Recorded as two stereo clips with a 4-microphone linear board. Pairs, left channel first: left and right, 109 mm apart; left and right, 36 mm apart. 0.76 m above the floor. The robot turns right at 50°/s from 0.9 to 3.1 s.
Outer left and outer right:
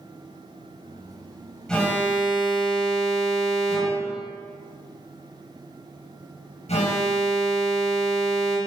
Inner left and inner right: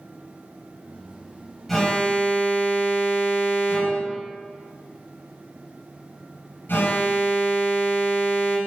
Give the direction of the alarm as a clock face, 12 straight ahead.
12 o'clock.